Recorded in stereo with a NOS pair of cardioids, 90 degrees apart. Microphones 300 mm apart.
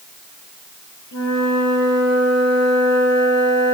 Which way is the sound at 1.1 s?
70° left.